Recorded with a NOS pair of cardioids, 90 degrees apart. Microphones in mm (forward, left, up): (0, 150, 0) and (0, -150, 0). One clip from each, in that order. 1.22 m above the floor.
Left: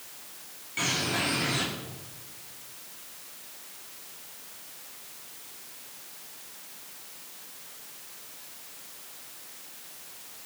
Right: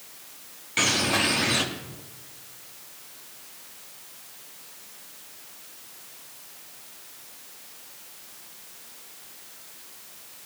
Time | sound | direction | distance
0.8 | a bird | 65° right | 2.5 m